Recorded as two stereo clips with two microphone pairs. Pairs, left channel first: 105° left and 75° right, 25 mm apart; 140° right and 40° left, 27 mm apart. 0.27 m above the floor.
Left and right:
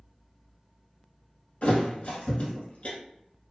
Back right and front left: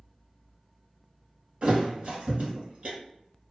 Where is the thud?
80° left, 1.1 m.